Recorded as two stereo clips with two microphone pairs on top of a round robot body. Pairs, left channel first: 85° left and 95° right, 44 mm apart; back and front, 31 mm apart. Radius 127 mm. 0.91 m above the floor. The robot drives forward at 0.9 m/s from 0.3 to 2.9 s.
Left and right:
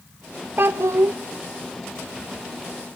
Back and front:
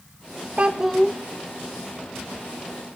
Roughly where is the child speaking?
Ahead right.